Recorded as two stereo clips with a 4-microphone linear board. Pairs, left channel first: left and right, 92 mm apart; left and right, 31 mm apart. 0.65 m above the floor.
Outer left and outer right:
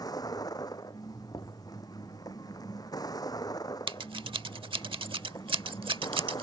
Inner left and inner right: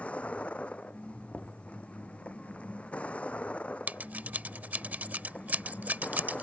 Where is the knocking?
50° left (ahead or behind).